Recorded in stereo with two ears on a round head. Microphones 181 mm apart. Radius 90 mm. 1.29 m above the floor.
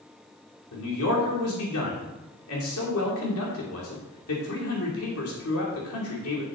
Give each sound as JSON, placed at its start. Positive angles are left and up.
{"t": 0.7, "sound": "a man speaking", "side_deg": 85, "distance_m": 3.0}